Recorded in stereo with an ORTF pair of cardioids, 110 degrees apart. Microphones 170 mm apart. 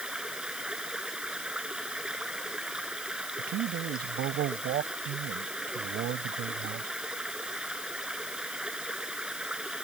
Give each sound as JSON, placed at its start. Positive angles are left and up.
{"t": 0.0, "sound": "running water", "azimuth_deg": -5}
{"t": 3.4, "sound": "a man speaking", "azimuth_deg": -70}